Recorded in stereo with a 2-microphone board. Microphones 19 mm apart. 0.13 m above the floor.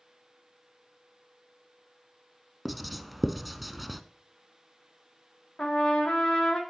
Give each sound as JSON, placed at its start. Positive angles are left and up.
{"t": 2.6, "sound": "writing", "side_deg": 0, "distance_m": 0.7}
{"t": 5.6, "sound": "a trumpet", "side_deg": 70, "distance_m": 2.0}